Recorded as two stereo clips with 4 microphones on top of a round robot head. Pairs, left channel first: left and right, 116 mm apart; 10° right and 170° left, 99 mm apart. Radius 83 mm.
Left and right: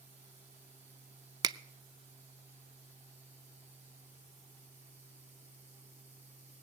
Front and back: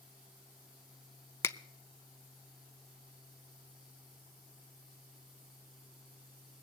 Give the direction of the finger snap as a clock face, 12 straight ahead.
2 o'clock.